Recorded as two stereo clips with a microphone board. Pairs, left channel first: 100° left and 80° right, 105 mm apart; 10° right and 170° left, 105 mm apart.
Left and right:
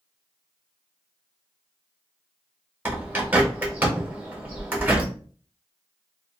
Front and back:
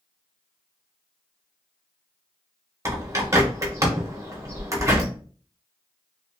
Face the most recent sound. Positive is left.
turn(degrees=-140)